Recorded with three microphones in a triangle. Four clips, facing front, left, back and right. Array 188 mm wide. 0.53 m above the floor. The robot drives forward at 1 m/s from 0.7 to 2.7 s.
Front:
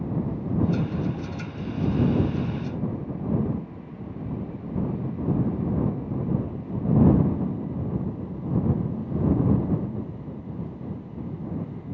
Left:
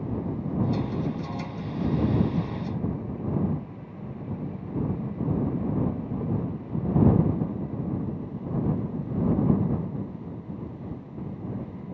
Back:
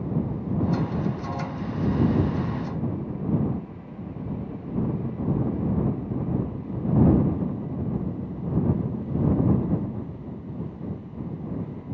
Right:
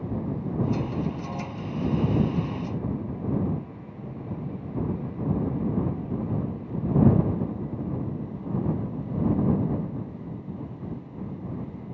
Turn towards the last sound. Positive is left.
No sound to turn to.